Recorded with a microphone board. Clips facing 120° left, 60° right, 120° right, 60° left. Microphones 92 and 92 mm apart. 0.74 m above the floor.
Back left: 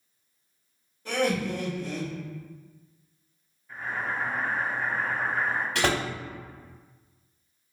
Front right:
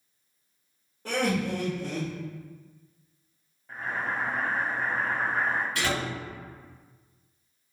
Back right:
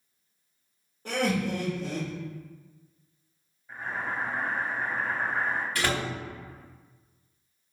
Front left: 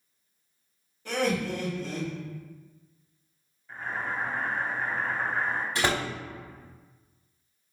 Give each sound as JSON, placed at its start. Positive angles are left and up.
{"t": 1.1, "sound": "laughter", "azimuth_deg": -85, "distance_m": 1.9}
{"t": 3.7, "sound": "boiling", "azimuth_deg": -45, "distance_m": 1.5}
{"t": 5.8, "sound": "a door slam", "azimuth_deg": 125, "distance_m": 1.1}